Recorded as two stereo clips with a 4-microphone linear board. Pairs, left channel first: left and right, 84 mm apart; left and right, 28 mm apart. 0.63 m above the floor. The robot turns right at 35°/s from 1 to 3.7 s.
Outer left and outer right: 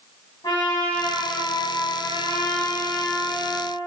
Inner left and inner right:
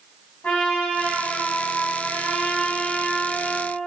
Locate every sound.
0.4 s a trumpet: 65° left, 4.5 m; by 3.7 s 155° left, 4.5 m